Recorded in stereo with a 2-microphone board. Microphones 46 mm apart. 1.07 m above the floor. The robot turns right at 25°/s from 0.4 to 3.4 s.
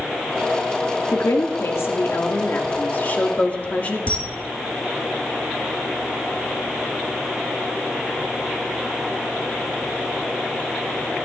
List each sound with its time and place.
1.1 s a woman speaking: 90° left, 2.0 m; by 4.0 s 150° left, 2.0 m
4.1 s a camera shutter: 30° left (ahead or behind), 2.5 m